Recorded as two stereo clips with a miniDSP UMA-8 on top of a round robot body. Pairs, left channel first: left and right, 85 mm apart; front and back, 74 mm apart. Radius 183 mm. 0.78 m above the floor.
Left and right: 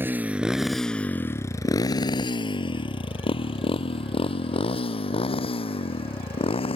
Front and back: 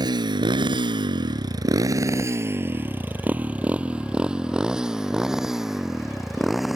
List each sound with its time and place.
0.0 s a motorcycle: 160° right; by 6.8 s 90° left